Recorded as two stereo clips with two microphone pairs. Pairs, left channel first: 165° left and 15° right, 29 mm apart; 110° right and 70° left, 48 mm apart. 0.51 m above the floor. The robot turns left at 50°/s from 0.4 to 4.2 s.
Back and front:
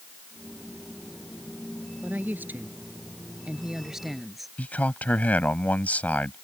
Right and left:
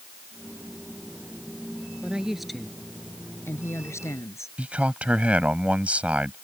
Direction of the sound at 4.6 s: 135° left.